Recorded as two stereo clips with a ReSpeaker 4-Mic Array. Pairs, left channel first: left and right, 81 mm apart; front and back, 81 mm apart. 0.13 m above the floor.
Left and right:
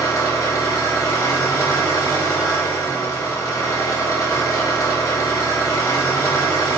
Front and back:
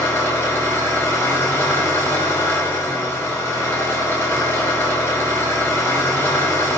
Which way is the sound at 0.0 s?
55° left.